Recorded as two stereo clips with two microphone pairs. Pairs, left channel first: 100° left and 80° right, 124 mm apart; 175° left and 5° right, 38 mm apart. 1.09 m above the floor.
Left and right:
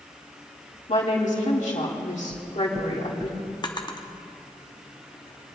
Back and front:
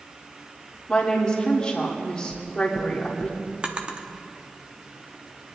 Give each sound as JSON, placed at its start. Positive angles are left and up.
{"t": 0.9, "sound": "a woman speaking", "azimuth_deg": 110, "distance_m": 2.5}
{"t": 2.3, "sound": "knocking", "azimuth_deg": -170, "distance_m": 0.8}
{"t": 3.6, "sound": "a drawer", "azimuth_deg": 55, "distance_m": 0.8}